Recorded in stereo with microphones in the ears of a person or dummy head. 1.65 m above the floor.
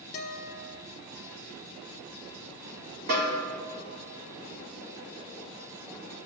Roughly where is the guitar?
Left.